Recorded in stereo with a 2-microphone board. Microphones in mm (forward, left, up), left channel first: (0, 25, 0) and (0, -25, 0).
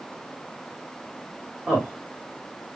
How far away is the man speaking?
About 1.7 m.